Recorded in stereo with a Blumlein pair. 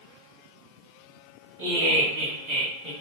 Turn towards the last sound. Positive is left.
turn(degrees=-35)